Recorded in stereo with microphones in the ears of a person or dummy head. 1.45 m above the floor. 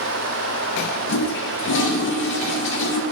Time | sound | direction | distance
1.1 | a toilet flushing | 55° left (ahead or behind) | 0.6 m